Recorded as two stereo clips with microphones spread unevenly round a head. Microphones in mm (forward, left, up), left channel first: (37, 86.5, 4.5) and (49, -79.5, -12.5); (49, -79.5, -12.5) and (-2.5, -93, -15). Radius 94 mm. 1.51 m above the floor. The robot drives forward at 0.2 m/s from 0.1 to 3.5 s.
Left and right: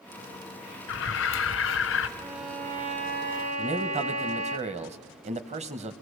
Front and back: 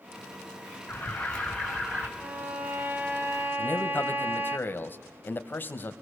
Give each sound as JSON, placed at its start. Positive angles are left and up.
{"t": 0.9, "sound": "an alarm", "azimuth_deg": 95, "distance_m": 1.0}
{"t": 2.2, "sound": "a violin", "azimuth_deg": -120, "distance_m": 1.5}
{"t": 3.6, "sound": "a man speaking", "azimuth_deg": -35, "distance_m": 1.1}